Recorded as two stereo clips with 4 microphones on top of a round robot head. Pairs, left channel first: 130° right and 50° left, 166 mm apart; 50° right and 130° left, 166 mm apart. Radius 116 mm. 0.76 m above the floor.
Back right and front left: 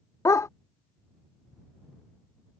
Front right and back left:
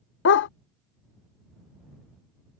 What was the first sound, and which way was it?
A dog barking, 55° right.